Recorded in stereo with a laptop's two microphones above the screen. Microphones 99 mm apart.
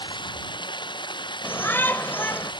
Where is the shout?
20° left (ahead or behind).